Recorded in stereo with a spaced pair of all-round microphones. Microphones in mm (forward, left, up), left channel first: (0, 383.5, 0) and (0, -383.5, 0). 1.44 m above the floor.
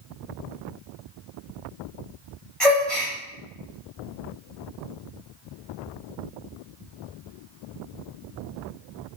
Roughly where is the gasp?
Centre.